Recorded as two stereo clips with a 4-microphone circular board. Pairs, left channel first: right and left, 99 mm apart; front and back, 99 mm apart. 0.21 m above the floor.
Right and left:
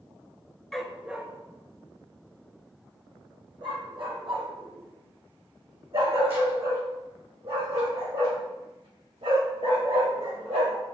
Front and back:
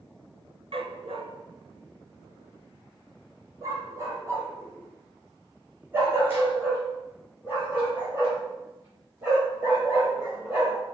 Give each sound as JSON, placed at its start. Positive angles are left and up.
{"t": 0.7, "sound": "a dog barking", "azimuth_deg": -175, "distance_m": 0.8}